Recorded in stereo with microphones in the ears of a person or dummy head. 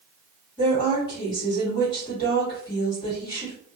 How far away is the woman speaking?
About 1.5 m.